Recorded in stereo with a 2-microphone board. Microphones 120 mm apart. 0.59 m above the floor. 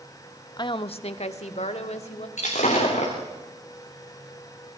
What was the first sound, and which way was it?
A woman speaking, 35° left (ahead or behind).